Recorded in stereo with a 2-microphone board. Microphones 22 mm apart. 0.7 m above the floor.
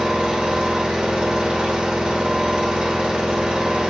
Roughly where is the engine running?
Right.